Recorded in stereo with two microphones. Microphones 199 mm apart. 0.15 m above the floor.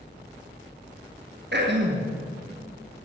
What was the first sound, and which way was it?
Throat clearing, 60° right (ahead or behind).